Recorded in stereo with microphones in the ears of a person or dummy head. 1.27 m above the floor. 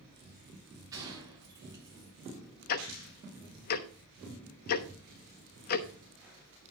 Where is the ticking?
45° left (ahead or behind), 1.0 m.